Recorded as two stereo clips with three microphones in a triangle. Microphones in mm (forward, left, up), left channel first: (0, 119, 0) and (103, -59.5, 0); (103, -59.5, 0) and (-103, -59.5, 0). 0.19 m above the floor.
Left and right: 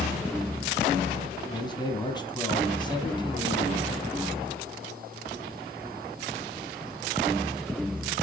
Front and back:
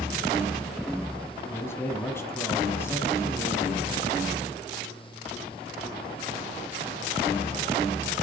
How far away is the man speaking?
About 1.3 m.